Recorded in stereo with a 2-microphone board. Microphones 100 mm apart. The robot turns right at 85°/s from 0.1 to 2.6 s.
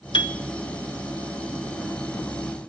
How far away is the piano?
About 1.0 m.